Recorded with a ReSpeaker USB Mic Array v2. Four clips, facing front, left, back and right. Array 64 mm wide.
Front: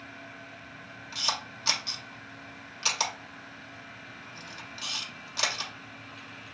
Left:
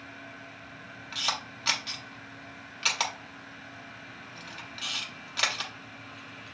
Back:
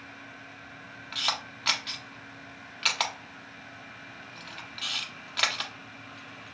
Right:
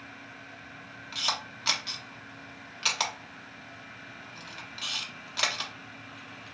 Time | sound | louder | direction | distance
1.1 | a camera shutter | even, back 1 dB | 170° left | 0.8 m